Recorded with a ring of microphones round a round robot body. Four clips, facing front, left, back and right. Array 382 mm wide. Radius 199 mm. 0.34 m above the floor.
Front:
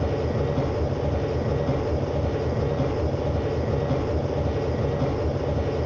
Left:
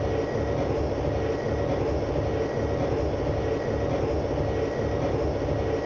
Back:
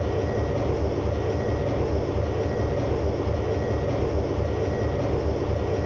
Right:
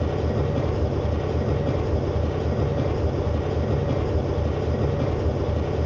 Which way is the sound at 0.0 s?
70° right.